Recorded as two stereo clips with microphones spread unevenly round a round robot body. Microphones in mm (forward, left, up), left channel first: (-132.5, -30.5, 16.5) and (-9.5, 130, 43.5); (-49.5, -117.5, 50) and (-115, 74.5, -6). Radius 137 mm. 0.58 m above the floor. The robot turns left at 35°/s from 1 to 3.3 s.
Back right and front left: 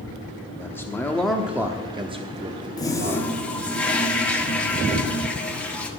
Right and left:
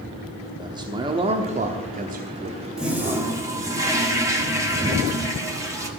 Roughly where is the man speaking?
Behind.